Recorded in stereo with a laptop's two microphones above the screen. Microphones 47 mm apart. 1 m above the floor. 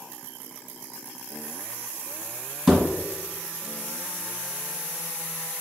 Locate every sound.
2.7 s a thud: centre (ahead or behind), 1.3 m